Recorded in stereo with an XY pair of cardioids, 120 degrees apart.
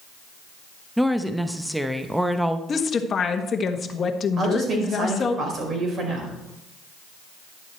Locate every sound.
1.0 s a woman speaking: 5° right, 0.8 m
2.7 s a woman speaking: 35° left, 1.3 m
4.4 s a woman speaking: 45° right, 4.5 m